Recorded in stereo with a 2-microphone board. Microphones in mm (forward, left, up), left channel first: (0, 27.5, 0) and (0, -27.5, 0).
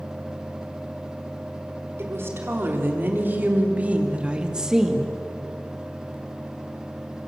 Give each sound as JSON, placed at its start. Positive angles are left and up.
{"t": 2.0, "sound": "a woman speaking", "side_deg": -45, "distance_m": 4.5}